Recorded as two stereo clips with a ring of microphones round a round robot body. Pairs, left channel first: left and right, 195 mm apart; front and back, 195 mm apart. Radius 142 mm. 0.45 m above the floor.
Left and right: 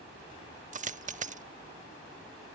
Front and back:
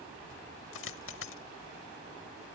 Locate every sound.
0.7 s a dropped coin: 35° right